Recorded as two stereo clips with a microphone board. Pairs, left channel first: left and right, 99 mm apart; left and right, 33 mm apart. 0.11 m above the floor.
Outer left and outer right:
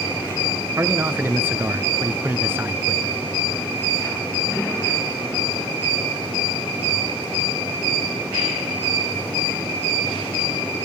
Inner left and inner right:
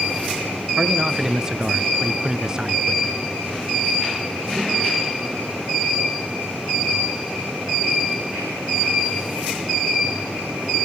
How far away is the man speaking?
About 1.1 m.